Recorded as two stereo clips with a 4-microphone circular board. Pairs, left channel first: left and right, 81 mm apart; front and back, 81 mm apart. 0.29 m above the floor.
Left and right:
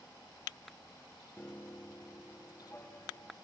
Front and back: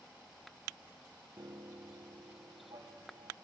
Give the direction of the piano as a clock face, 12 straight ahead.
7 o'clock.